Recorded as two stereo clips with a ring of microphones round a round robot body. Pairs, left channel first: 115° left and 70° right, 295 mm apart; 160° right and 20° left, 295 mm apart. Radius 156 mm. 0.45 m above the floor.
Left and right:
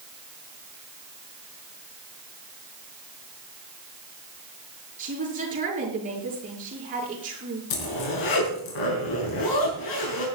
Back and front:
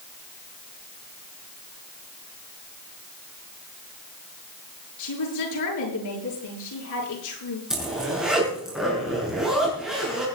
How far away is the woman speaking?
About 7 m.